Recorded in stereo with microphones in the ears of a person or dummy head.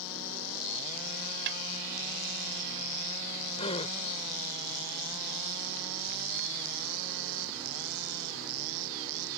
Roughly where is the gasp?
Left.